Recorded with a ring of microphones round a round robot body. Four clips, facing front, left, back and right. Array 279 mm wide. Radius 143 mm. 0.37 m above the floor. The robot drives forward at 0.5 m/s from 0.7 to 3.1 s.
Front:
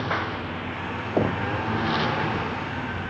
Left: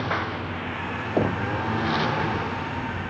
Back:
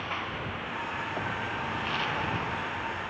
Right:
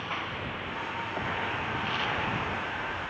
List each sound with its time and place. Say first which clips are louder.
0.0 s a lawn mower: left 7 dB, front 7 dB; 45° left; by 3.1 s 50° left
1.2 s knocking: left 11 dB, front 14 dB; 45° left